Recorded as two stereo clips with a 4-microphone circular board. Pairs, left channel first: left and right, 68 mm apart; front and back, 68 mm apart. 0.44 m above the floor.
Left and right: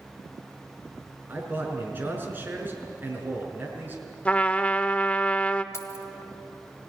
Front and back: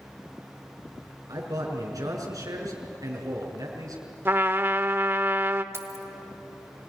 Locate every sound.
1.3 s a man speaking: 150° right, 5.5 m
4.2 s a trumpet: 150° left, 0.8 m
5.7 s keys jangling: 130° left, 1.6 m